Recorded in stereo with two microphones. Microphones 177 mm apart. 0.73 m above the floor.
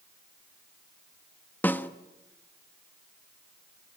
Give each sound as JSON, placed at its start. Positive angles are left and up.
{"t": 1.6, "sound": "a snare drum", "side_deg": 10, "distance_m": 1.2}